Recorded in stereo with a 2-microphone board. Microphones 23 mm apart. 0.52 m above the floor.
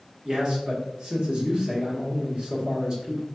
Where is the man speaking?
35° right (ahead or behind), 1.2 m.